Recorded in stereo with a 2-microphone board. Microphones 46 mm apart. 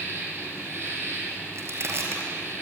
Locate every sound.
0.0 s an insect: 65° right (ahead or behind), 7.5 m
1.6 s crushing: 70° right (ahead or behind), 4 m